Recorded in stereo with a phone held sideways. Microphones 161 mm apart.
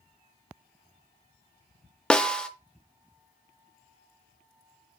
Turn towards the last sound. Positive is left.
turn(degrees=5)  # may be behind; listen again after turning